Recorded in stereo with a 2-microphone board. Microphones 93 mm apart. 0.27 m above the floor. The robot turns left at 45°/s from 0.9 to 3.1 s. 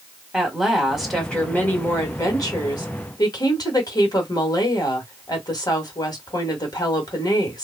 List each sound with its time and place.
0.3 s a woman speaking: 175° right, 1.2 m; by 7.7 s 85° left, 1.2 m